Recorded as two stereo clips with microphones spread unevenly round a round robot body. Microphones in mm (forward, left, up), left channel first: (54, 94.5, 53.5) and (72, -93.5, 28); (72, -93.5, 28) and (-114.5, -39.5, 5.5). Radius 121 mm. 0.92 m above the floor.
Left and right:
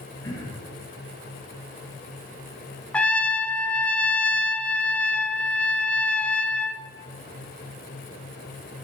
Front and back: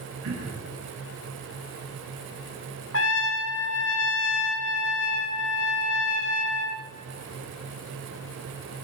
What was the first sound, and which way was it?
Throat clearing, 170° left.